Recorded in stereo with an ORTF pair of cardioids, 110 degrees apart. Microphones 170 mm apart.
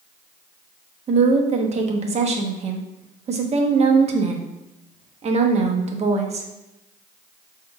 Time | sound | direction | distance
1.1 | a woman speaking | 40° right | 0.9 m